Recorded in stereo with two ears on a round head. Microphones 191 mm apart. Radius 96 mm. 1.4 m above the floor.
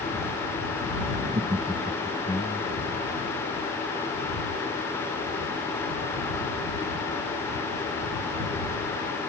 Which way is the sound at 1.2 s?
35° right (ahead or behind).